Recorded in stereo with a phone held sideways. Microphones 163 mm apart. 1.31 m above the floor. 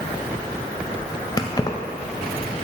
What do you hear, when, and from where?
1.4 s keys jangling: 25° left (ahead or behind), 0.5 m